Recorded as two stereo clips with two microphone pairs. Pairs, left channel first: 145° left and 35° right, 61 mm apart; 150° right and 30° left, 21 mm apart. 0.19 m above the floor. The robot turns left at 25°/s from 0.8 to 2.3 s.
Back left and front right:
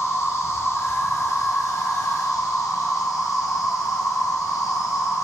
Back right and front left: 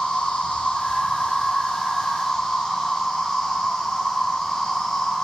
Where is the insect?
175° right, 1.8 m; by 5.2 s 145° left, 1.8 m.